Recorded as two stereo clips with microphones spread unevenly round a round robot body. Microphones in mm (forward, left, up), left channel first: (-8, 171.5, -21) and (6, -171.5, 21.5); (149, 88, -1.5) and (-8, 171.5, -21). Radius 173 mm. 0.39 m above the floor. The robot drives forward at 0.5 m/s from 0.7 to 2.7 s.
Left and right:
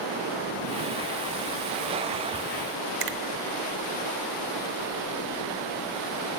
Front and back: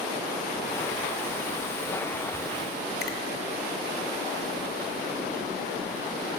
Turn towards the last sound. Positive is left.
turn(degrees=-85)